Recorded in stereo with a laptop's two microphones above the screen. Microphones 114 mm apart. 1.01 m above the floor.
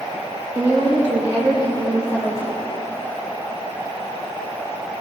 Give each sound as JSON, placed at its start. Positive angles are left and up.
{"t": 0.6, "sound": "a woman speaking", "side_deg": -25, "distance_m": 1.2}